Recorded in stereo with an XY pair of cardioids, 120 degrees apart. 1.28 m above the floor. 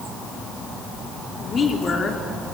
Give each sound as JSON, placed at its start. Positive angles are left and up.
{"t": 1.4, "sound": "a woman speaking", "azimuth_deg": 35, "distance_m": 4.0}